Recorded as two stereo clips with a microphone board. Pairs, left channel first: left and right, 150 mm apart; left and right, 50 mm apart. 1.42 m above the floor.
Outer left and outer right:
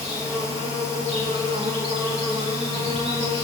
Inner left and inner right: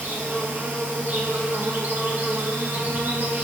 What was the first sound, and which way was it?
An insect, 40° right (ahead or behind).